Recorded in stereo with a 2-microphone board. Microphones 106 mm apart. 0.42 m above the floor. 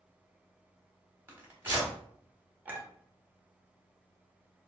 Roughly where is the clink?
Centre.